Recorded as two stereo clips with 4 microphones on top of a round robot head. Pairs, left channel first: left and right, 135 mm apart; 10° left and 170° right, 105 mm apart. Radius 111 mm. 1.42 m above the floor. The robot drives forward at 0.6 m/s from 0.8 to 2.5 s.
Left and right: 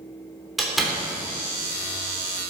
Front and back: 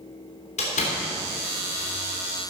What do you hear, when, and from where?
0.6 s a door slam: straight ahead, 3 m